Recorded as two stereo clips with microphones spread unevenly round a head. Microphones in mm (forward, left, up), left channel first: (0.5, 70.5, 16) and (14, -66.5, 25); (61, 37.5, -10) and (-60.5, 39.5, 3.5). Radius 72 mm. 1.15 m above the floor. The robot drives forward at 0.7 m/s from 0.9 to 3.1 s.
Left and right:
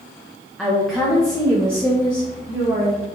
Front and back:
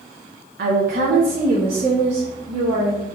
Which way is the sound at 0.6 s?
175° right.